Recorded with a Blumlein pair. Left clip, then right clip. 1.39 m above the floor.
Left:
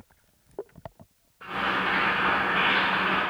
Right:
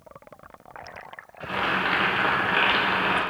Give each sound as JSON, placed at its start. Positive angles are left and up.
{"t": 1.4, "sound": "boiling", "azimuth_deg": -50, "distance_m": 0.8}